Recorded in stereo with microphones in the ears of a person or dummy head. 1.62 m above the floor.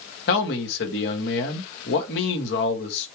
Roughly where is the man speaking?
Left.